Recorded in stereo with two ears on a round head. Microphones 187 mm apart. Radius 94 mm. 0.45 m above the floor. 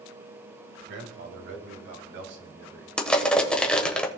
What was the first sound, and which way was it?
A man speaking, 60° right (ahead or behind).